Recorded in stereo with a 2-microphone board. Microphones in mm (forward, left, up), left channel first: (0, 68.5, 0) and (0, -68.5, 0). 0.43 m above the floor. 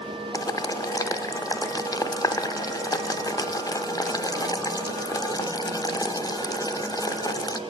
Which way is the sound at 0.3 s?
25° left (ahead or behind).